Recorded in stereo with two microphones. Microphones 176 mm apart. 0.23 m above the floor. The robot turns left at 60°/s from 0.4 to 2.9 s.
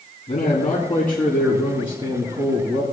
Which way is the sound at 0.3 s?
50° left.